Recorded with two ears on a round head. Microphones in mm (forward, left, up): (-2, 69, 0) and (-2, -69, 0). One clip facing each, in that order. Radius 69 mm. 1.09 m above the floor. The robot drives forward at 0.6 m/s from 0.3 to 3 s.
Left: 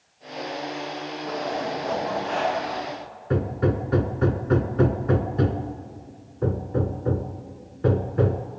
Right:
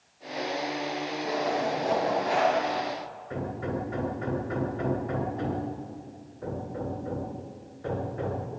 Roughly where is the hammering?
Left.